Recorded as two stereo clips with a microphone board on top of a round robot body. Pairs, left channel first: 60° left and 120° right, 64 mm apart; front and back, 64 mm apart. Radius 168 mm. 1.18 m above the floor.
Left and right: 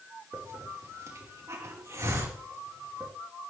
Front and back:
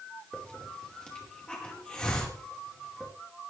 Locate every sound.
0.3 s a hiss: 75° right, 5 m